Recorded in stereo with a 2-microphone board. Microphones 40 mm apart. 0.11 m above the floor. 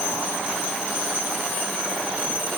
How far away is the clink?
I don't hear a clink.